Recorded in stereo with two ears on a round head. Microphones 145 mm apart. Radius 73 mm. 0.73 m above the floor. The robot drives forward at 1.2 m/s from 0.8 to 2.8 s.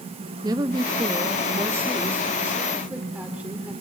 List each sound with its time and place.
0.4 s a woman speaking: 25° right (ahead or behind), 1.0 m; by 3.7 s 10° right (ahead or behind), 2.5 m